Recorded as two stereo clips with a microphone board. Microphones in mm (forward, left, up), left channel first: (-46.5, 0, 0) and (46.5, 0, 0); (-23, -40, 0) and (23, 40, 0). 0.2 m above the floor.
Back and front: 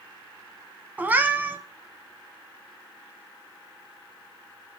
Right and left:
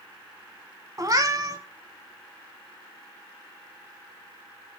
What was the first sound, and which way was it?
A cat meowing, 60° left.